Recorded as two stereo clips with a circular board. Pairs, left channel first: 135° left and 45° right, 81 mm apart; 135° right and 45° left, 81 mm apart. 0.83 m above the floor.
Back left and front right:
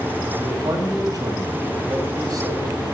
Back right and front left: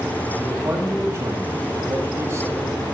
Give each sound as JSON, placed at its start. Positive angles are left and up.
{"t": 0.4, "sound": "a man speaking", "azimuth_deg": -5, "distance_m": 5.5}